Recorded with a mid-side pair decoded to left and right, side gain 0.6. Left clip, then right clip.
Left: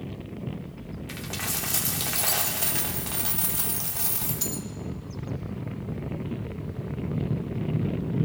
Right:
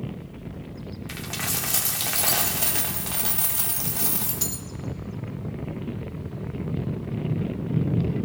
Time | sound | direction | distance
1.1 | a dropped coin | 10° right | 1.6 m